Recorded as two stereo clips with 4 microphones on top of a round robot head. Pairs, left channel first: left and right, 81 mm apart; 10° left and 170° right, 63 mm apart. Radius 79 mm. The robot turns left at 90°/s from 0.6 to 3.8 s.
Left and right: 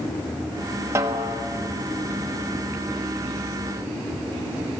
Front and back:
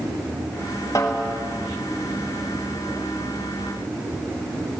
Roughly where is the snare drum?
Ahead right.